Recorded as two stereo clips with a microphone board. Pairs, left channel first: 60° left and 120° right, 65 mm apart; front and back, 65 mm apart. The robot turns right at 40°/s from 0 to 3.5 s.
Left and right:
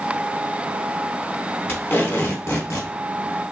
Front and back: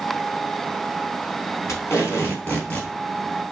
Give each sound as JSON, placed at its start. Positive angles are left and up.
{"t": 1.7, "sound": "tape being pulled", "azimuth_deg": 20, "distance_m": 2.0}